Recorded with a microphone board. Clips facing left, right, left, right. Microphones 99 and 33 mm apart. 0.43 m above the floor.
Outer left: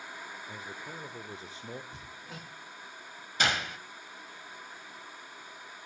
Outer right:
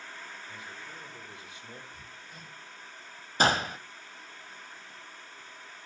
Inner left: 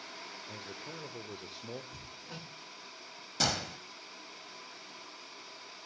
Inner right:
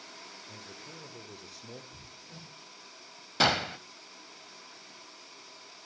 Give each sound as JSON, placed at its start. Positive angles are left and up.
{"t": 0.5, "sound": "a man speaking", "side_deg": 35, "distance_m": 1.1}
{"t": 1.9, "sound": "hammering", "side_deg": 75, "distance_m": 4.0}
{"t": 3.4, "sound": "a gunshot", "side_deg": -35, "distance_m": 0.6}